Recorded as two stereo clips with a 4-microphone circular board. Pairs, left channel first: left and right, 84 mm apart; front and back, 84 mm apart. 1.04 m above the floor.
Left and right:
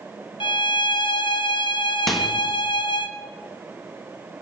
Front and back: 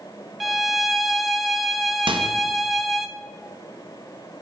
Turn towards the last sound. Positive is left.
turn(degrees=175)